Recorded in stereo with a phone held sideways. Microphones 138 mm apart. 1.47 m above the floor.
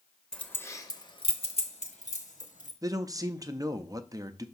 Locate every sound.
0.3 s keys jangling: 5° left (ahead or behind), 0.9 m; by 2.7 s 70° left (ahead or behind), 1.7 m
2.8 s a man speaking: 25° right (ahead or behind), 0.6 m